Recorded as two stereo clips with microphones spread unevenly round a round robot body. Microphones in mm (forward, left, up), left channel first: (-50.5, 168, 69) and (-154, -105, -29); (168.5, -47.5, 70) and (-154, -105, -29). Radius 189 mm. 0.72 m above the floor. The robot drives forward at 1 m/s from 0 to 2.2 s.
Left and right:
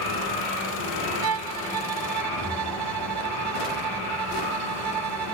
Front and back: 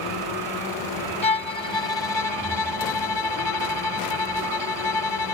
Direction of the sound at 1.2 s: 65° right.